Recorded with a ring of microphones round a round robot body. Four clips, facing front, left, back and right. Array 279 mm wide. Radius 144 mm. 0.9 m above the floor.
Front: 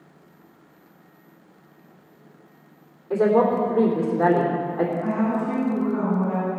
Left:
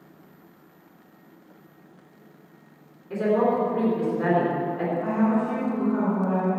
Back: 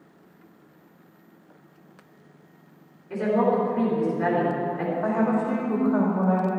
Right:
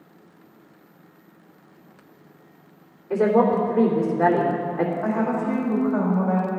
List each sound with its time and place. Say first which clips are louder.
3.1 s a woman speaking: right 3 dB, front 4 dB; 40° right, 3.5 m
5.0 s a woman speaking: even, even; 145° right, 3.5 m